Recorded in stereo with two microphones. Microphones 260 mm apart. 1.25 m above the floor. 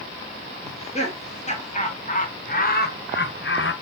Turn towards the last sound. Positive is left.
turn(degrees=50)  # may be behind; listen again after turning